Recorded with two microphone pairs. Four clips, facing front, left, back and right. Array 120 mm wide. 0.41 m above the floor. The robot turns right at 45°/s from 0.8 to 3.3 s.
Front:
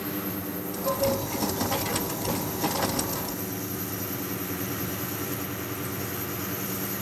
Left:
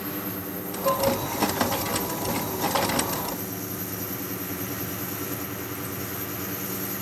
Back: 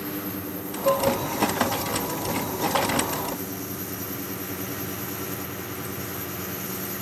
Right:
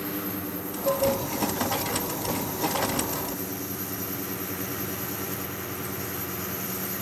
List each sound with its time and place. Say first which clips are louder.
0.8 s dishes clattering: left 1 dB, back 5 dB; 100° left, 2.5 m; by 1.1 s 115° left, 2.5 m